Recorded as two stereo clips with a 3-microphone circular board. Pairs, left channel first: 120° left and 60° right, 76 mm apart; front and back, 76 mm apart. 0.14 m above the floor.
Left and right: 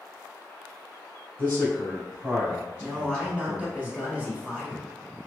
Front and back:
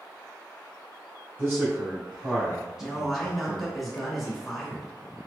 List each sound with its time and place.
1.4 s a man speaking: 160° left, 1.4 m; by 3.7 s 70° right, 1.5 m
2.8 s a man speaking: 90° right, 1.0 m